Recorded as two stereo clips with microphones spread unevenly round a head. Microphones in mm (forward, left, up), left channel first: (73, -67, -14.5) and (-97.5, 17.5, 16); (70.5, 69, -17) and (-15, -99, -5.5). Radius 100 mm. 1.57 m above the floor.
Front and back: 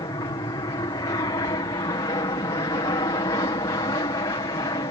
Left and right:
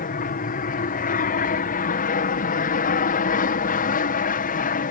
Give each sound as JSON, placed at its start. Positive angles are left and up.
{"t": 0.0, "sound": "an aircraft", "azimuth_deg": 40}